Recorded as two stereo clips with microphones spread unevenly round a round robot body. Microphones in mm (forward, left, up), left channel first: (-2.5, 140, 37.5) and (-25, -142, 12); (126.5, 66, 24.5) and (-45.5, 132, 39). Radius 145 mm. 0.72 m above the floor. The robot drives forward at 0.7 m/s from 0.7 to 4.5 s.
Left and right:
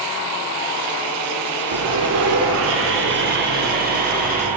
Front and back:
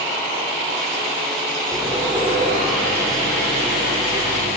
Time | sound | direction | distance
1.7 | sawing | 115° right | 1.2 m